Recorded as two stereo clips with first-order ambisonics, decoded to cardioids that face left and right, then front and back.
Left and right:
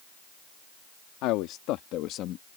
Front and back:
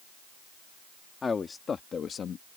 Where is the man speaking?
70° left; by 2.6 s 50° left.